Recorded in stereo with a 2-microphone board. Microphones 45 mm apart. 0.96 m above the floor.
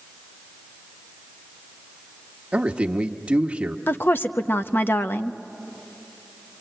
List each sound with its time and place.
2.5 s a man speaking: 25° right (ahead or behind), 1.1 m
3.9 s a woman speaking: 50° left (ahead or behind), 0.8 m